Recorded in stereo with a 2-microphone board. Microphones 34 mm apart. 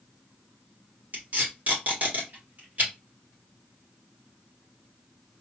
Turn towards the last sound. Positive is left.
turn(degrees=-50)  # may be behind; listen again after turning